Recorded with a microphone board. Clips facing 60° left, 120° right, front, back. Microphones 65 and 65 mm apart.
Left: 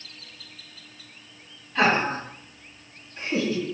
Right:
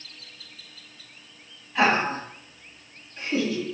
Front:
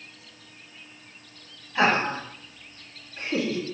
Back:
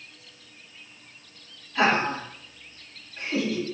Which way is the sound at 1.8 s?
40° right.